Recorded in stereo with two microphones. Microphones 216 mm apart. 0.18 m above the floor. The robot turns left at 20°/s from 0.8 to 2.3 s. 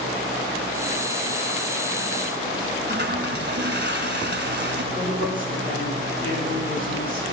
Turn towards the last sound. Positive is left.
turn(degrees=40)  # may be behind; listen again after turning